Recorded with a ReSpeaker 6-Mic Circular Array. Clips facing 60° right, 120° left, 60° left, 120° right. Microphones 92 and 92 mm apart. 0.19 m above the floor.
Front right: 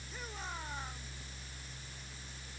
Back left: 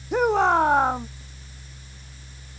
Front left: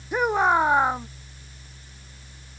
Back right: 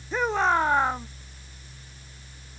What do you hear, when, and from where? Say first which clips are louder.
0.1 s a shout: back left 27 dB, front left 3 dB; 135° left